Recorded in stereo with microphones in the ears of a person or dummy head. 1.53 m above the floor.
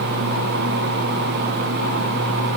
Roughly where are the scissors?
No scissors in this recording.